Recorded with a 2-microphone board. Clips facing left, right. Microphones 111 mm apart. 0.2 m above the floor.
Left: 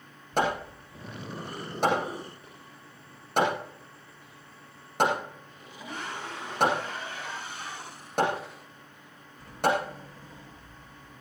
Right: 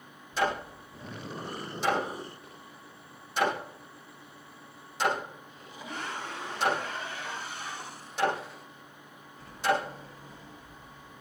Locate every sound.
0.4 s hammering: 55° left (ahead or behind), 7.5 m